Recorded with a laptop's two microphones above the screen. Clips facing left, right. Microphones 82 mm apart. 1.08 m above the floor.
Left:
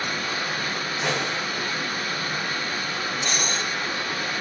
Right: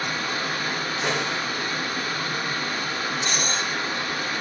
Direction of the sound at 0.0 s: 35° right (ahead or behind).